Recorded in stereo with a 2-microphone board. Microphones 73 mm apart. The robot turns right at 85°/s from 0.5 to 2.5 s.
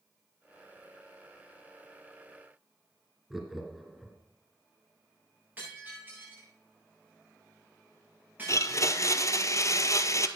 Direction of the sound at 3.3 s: 5° right (ahead or behind).